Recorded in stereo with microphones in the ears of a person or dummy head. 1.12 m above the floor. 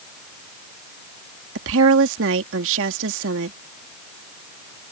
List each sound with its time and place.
1.6 s a woman speaking: 75° right (ahead or behind)